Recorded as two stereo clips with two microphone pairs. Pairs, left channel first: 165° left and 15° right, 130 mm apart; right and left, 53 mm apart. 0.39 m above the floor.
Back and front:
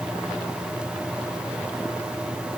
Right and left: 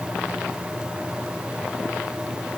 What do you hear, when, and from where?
Only background noise.